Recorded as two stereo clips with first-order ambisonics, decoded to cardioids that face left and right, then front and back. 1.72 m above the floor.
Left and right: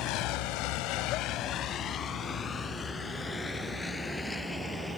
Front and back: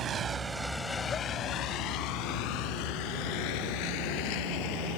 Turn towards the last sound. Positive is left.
turn(degrees=5)